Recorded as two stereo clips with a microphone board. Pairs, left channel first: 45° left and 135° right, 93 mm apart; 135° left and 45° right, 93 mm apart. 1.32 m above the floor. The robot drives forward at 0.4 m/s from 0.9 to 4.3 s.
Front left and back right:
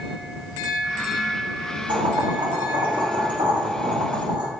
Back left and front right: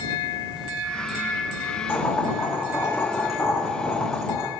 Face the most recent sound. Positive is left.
turn(degrees=-165)